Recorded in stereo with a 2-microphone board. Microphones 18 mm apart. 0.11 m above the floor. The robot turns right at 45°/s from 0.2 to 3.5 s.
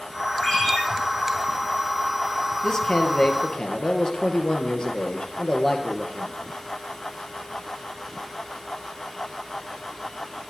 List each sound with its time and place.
0.4 s a ringtone: 40° left (ahead or behind), 5.5 m; by 0.8 s 60° left (ahead or behind), 5.5 m
2.6 s a man speaking: 45° left, 3 m; by 6.3 s 85° left, 3 m